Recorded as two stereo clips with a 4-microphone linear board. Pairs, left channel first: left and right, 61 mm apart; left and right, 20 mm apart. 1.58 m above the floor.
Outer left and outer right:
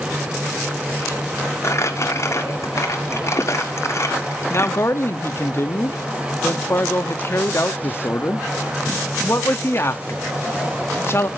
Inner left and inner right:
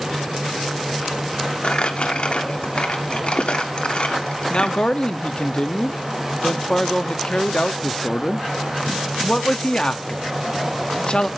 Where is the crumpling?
50° left (ahead or behind), 1.4 m.